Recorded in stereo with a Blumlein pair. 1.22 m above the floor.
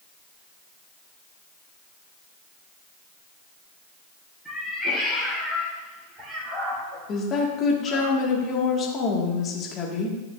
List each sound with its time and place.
4.5 s a cat meowing: straight ahead, 4 m; by 8.1 s 75° right, 2.5 m
7.1 s a woman speaking: 30° left, 2 m